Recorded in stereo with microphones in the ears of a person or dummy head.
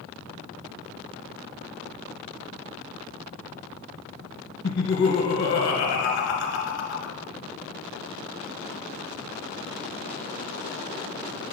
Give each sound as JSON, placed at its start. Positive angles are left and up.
{"t": 4.6, "sound": "laughter", "side_deg": 60, "distance_m": 1.5}